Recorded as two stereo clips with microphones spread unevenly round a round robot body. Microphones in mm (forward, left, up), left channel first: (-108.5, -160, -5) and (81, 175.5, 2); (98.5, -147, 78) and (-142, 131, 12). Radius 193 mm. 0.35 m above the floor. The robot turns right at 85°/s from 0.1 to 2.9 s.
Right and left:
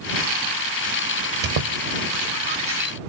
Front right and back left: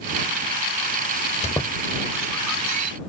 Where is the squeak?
25° left; by 2.9 s 150° left.